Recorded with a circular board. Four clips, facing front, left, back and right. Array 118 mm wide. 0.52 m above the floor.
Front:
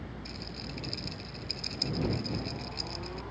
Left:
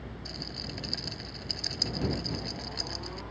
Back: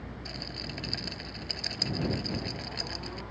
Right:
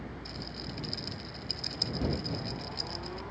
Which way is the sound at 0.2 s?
160° left.